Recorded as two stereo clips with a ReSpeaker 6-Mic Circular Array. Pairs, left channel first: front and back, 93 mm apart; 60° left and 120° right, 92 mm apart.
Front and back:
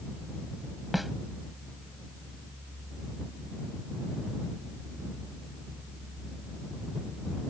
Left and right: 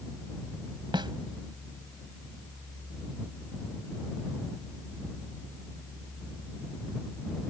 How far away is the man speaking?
I don't hear a man speaking.